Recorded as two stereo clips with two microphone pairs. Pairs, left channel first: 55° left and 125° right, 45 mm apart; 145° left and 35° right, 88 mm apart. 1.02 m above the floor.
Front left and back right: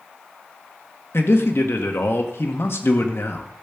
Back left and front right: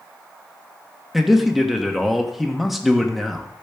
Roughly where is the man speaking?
Ahead left.